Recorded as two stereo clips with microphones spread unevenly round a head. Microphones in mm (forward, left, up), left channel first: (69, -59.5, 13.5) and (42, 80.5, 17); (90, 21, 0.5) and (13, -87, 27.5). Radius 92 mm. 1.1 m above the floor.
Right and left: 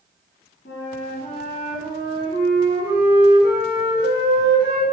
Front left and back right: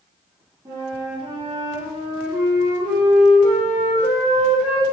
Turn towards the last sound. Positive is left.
turn(degrees=-75)